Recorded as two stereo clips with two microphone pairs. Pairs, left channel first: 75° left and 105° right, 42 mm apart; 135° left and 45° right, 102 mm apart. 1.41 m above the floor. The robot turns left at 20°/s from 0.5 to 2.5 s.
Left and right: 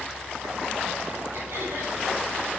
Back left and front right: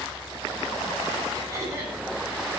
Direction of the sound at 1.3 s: 95° right.